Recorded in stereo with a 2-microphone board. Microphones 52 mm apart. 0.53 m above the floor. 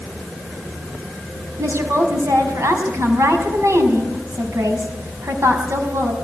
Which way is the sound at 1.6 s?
70° right (ahead or behind).